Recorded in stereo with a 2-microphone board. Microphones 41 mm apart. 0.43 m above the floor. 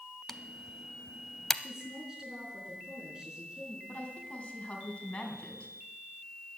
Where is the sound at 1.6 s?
15° right (ahead or behind), 4.5 m.